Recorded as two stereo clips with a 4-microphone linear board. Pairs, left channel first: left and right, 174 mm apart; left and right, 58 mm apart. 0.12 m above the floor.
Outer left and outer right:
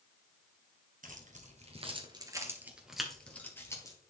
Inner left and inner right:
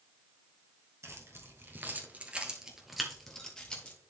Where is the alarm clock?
I don't hear an alarm clock.